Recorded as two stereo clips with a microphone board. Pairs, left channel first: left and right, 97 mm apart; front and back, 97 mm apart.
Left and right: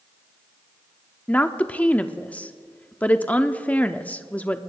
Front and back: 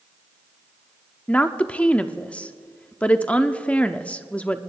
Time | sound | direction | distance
1.3 | a woman speaking | 50° left | 0.7 m